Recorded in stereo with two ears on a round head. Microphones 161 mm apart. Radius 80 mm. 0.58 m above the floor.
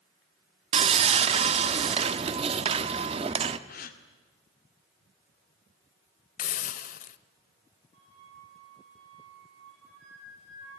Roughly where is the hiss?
Left.